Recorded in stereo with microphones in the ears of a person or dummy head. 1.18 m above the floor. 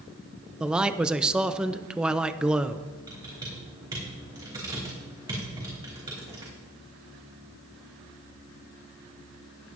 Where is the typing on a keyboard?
25° right (ahead or behind), 4 m.